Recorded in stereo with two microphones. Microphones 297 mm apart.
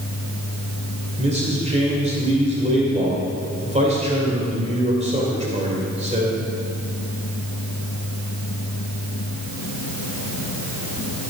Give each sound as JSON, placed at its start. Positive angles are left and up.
{"t": 1.2, "sound": "a man speaking", "side_deg": -20, "distance_m": 2.5}